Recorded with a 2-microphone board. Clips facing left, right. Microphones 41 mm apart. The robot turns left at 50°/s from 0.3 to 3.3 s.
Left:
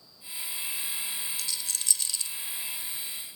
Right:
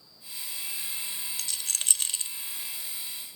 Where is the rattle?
50° right (ahead or behind), 0.6 m; by 2.3 s 35° right (ahead or behind), 0.6 m.